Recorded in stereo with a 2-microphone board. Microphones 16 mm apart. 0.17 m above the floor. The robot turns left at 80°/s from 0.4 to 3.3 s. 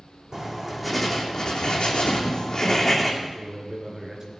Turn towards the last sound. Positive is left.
turn(degrees=-30)  # may be behind; listen again after turning